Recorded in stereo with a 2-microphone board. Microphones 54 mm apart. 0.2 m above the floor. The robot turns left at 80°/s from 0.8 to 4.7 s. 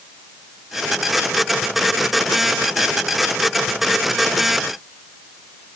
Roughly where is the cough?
No cough in this recording.